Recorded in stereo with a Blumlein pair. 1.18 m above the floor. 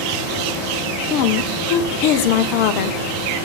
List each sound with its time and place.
0.0 s a fan: 20° left, 8 m
1.1 s a woman speaking: 45° left, 0.9 m